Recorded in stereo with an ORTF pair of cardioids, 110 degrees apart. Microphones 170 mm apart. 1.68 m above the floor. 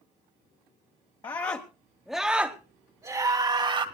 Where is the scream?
25° left, 1.3 m; by 3.9 s 35° right, 1.9 m.